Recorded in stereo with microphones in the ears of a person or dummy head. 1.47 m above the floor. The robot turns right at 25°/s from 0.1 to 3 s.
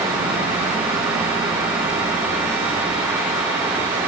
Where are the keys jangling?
I don't hear keys jangling.